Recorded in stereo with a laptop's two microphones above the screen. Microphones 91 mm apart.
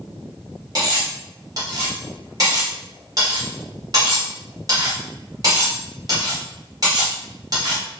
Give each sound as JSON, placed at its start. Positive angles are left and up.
{"t": 0.8, "sound": "cutlery clinking", "side_deg": -45, "distance_m": 1.6}